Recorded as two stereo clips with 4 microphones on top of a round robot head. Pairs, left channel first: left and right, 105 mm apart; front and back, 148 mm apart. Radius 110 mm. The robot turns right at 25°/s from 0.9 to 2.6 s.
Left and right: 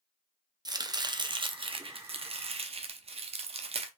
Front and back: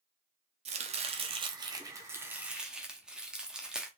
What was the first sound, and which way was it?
Chopping, 140° right.